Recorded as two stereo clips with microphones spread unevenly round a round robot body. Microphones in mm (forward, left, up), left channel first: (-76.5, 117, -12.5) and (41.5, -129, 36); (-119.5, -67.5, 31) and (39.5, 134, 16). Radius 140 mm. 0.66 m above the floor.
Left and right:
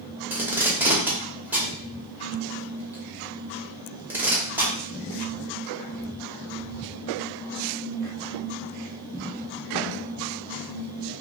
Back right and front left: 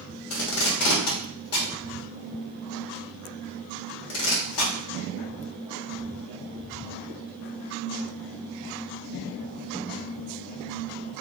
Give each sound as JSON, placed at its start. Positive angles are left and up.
{"t": 0.3, "sound": "tape being pulled", "azimuth_deg": -150, "distance_m": 0.9}